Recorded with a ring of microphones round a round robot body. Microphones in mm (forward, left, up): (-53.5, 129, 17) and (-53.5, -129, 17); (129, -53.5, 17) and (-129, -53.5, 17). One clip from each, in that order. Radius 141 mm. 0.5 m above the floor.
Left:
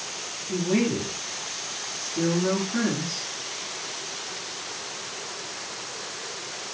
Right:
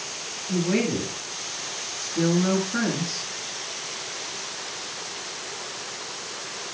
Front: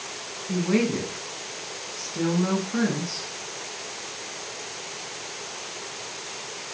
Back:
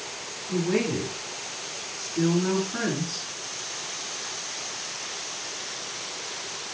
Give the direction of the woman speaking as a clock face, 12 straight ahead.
1 o'clock.